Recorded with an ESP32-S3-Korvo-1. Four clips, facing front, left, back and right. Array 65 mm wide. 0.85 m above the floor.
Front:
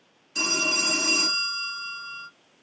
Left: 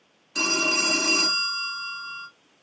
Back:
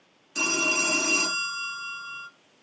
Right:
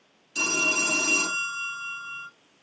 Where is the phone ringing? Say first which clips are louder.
Left 2 dB, back 1 dB; 95° left, 1.0 m.